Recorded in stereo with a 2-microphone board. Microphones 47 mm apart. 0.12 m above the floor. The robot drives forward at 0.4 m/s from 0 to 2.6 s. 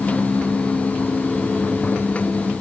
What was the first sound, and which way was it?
Only background noise.